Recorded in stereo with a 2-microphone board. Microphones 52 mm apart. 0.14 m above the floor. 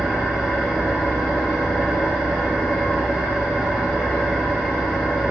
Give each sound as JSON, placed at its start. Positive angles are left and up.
{"t": 0.0, "sound": "an engine running", "side_deg": 0, "distance_m": 0.9}